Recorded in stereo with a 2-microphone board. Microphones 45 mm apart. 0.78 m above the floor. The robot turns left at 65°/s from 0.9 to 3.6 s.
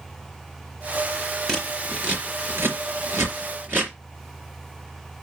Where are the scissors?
5° left (ahead or behind), 3.5 m; by 3.9 s 50° right (ahead or behind), 3.5 m.